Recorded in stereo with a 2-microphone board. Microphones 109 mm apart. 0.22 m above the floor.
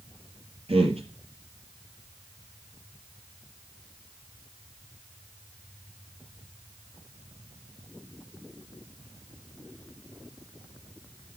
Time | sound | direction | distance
0.7 | a man speaking | 60° right (ahead or behind) | 4.5 m